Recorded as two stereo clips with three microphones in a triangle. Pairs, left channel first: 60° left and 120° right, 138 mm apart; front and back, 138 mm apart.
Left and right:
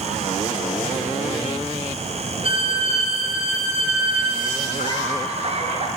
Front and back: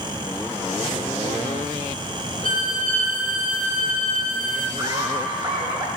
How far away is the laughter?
About 2 m.